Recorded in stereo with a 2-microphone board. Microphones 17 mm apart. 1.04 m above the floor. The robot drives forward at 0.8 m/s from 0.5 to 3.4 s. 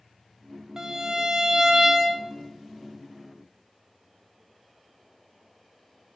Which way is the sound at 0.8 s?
30° right (ahead or behind).